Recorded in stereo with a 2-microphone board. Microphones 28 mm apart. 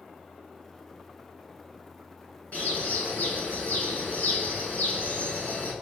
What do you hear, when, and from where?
2.5 s a bird: 60° left (ahead or behind), 8.5 m